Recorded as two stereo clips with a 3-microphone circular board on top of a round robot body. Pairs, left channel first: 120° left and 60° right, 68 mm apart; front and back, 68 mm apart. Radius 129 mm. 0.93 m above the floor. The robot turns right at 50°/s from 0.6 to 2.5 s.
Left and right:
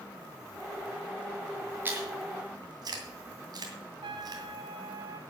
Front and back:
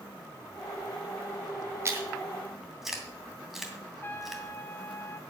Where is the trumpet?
60° right, 1.0 m.